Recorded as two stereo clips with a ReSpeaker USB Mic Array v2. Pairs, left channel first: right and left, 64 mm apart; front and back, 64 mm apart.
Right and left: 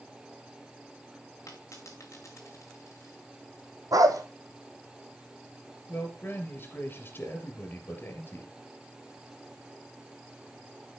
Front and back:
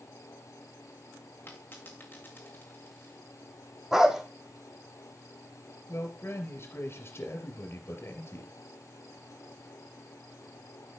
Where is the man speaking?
40° right, 3.5 m.